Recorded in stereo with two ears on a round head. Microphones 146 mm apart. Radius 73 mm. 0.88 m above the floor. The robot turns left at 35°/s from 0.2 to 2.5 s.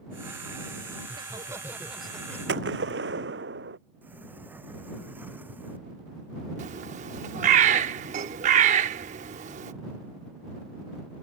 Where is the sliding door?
10° right (ahead or behind).